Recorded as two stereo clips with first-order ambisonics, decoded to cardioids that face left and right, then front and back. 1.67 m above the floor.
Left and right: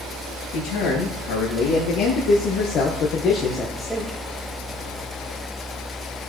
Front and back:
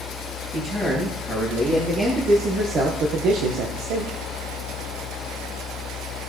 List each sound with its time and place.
0.5 s a man speaking: 100° left, 2.5 m; by 4.2 s 170° right, 1.0 m